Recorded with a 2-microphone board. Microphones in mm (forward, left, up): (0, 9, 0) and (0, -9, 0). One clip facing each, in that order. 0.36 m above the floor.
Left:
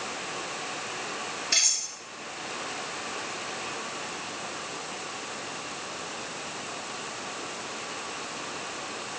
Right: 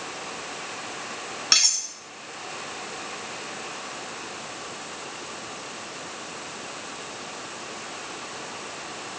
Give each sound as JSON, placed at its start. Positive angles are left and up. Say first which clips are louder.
{"t": 1.5, "sound": "cutlery clinking", "louder": "right 5 dB", "side_deg": -80, "distance_m": 1.9}